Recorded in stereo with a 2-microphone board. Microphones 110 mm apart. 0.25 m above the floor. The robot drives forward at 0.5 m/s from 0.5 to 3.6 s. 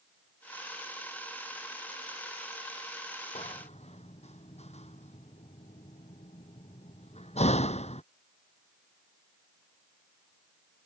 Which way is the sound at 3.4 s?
80° left.